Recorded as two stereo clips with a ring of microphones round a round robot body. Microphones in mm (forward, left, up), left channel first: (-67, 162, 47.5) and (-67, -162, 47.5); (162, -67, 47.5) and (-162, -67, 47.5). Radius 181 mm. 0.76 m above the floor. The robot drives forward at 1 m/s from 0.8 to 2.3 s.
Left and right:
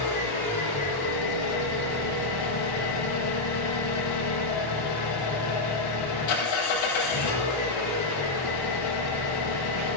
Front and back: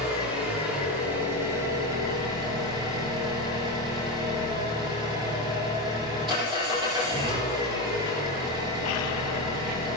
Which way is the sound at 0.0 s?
90° left.